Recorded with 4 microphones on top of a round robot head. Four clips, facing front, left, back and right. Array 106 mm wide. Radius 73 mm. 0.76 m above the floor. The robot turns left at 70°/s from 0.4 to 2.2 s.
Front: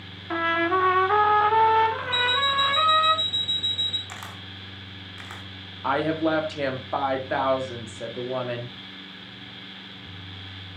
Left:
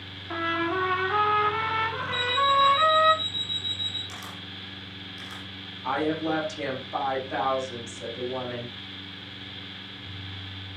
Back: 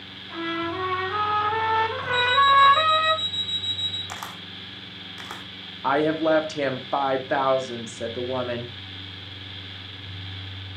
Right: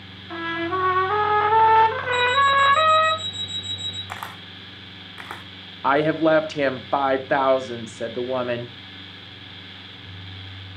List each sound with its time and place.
0.3 s a trumpet: 10° left, 2 m; by 3.1 s 115° right, 2 m
2.1 s an alarm clock: 55° right, 1.4 m; by 4.0 s 60° right, 1.4 m
4.1 s a camera shutter: 115° right, 1.5 m
5.8 s a woman speaking: 105° right, 2 m